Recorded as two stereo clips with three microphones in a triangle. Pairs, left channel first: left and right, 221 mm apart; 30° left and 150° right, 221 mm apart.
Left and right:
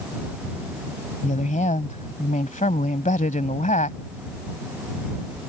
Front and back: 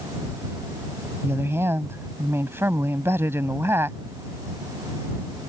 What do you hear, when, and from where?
1.2 s a woman speaking: 135° left